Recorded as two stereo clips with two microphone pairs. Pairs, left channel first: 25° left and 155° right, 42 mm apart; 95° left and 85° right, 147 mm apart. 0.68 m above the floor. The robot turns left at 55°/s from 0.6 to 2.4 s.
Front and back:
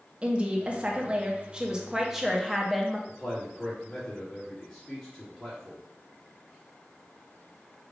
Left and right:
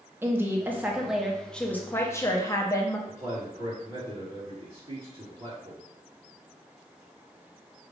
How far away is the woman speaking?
About 0.7 m.